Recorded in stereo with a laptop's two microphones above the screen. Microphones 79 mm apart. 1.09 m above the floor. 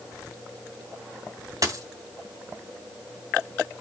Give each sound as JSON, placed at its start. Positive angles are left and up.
{"t": 1.6, "sound": "a dropped coin", "side_deg": -50, "distance_m": 2.5}